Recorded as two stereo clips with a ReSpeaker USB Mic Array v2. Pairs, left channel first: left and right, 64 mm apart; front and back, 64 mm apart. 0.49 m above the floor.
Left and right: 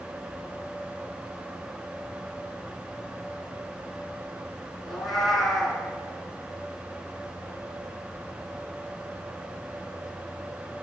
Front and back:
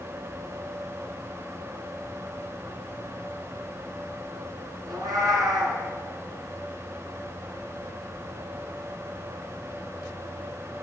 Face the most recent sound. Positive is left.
turn(degrees=175)